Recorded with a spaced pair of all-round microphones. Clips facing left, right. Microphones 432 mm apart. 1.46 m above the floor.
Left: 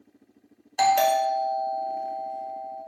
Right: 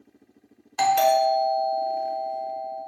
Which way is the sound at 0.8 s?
20° right (ahead or behind).